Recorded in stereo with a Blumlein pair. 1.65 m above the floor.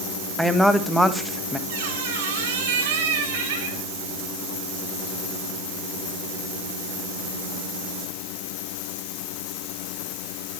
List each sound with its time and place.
0.4 s a woman speaking: straight ahead, 2 m
1.7 s a squeak: 55° right, 5.5 m